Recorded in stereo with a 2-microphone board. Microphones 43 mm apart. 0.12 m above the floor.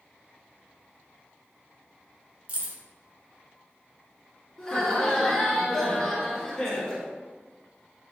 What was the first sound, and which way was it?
Keys jangling, 30° right (ahead or behind).